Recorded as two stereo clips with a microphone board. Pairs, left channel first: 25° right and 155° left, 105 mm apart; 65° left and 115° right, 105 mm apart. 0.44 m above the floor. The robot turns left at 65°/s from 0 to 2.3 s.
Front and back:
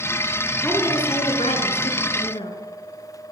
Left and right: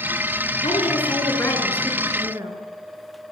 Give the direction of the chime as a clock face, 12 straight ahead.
I don't hear a chime.